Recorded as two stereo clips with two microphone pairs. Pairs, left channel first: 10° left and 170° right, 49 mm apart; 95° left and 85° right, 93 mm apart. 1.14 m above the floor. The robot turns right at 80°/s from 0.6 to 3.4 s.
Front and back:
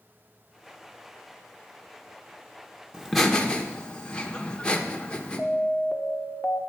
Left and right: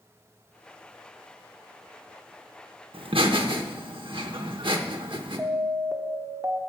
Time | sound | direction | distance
2.9 | laughter | 95° right | 1.3 m
5.4 | an alarm | 35° right | 0.9 m